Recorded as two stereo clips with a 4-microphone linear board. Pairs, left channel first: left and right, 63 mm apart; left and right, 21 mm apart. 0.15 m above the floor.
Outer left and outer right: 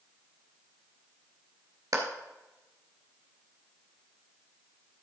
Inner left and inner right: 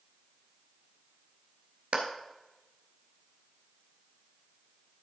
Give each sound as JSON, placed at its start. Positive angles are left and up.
{"t": 1.9, "sound": "a clap", "side_deg": -60, "distance_m": 1.6}